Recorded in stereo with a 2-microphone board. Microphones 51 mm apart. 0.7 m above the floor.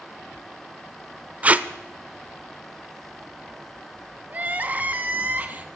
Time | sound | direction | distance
1.4 | tape being pulled | 30° right (ahead or behind) | 0.6 m
4.3 | crying | 30° right (ahead or behind) | 1.1 m